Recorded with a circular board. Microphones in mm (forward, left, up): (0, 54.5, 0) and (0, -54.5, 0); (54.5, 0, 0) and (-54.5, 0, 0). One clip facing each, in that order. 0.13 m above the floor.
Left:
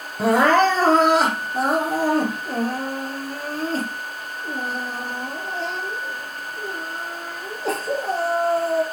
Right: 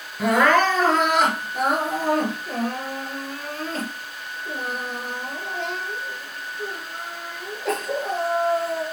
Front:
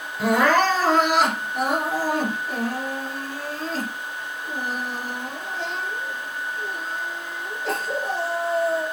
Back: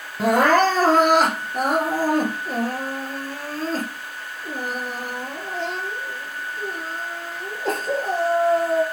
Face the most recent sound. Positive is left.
turn(degrees=145)